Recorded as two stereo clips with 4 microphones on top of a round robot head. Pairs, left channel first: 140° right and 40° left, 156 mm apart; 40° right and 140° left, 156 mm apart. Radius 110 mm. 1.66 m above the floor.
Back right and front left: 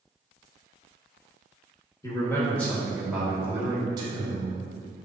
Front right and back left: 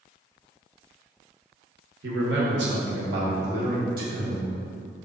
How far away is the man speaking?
About 1.6 m.